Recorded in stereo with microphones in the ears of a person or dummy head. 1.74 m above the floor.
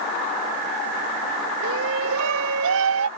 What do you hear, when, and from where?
1.6 s a shout: 65° right (ahead or behind); by 3.1 s 75° right (ahead or behind)